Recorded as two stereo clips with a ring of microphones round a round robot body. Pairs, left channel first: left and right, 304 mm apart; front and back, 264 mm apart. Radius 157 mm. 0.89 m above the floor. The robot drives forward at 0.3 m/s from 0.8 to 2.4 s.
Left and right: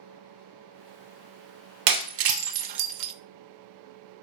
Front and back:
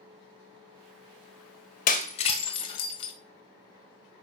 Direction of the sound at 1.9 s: 65° right.